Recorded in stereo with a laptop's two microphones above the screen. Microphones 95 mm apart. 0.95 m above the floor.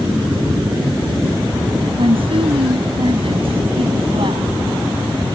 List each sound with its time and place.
2.0 s a woman speaking: 70° right (ahead or behind)